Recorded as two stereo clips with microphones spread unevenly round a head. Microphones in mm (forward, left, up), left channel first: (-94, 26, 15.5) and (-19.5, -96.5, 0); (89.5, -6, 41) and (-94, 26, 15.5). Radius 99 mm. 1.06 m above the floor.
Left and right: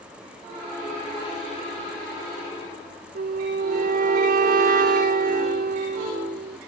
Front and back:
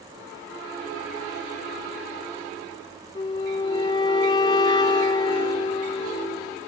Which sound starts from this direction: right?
A flute, at 3.1 s.